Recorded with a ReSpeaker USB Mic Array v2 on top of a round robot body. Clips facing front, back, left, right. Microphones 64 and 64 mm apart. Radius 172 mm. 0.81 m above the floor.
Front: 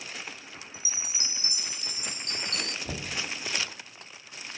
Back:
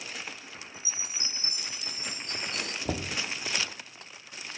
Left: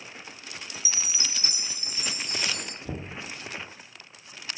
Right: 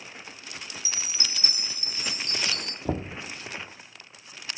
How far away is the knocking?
About 1.4 m.